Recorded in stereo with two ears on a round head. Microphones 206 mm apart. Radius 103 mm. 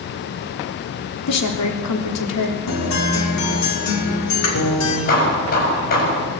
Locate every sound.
1.3 s a woman speaking: 85° left, 3.5 m
2.7 s a guitar: 85° left, 5.5 m
5.1 s hammering: 45° left (ahead or behind), 8 m